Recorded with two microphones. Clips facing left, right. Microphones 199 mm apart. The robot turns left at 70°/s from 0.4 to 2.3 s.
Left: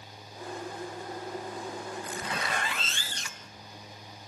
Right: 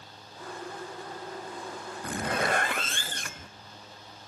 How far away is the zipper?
About 0.6 m.